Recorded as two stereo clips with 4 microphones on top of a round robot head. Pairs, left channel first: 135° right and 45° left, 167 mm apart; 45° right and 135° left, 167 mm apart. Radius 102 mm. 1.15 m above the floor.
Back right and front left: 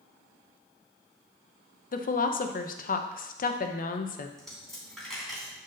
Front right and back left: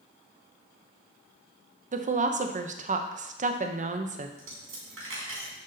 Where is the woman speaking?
175° right, 0.8 m.